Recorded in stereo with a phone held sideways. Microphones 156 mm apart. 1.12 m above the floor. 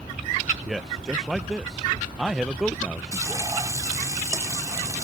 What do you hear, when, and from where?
0.7 s a man speaking: 5° right (ahead or behind)
3.1 s frying: 20° right (ahead or behind)